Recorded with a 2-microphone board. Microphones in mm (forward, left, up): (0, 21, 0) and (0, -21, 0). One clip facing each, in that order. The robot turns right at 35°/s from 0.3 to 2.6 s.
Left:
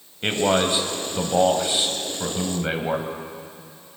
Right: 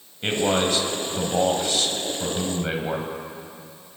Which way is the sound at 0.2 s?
15° left (ahead or behind).